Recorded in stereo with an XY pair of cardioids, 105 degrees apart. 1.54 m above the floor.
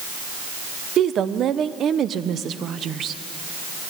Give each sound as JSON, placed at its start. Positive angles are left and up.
{"t": 1.0, "sound": "a woman speaking", "azimuth_deg": -60, "distance_m": 1.1}